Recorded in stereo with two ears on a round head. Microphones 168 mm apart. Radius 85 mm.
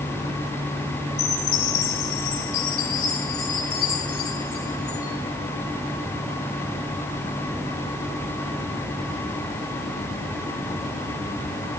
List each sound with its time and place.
1.2 s a chime: 80° left, 7 m